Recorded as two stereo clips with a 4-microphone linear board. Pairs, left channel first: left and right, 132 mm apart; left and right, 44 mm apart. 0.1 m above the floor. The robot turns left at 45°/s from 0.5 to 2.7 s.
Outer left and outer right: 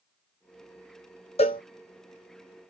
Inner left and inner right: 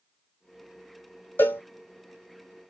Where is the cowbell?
50° left (ahead or behind), 0.8 m; by 1.6 s 40° left (ahead or behind), 0.8 m.